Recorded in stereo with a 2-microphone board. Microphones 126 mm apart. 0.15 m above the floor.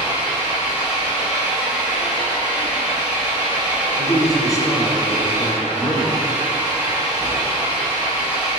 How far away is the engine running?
About 2.5 m.